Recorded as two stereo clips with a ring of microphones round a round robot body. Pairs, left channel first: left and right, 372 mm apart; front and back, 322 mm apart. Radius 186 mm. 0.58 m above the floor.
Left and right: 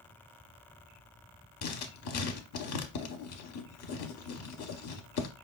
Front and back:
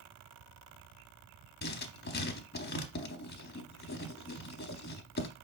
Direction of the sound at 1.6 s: 50° left.